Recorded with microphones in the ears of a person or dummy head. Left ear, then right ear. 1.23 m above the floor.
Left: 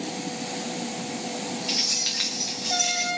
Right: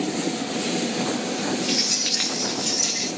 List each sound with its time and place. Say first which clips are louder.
1.7 s keys jangling: right 1 dB; 15° right (ahead or behind), 1.4 m; by 3.1 s 25° right (ahead or behind), 3 m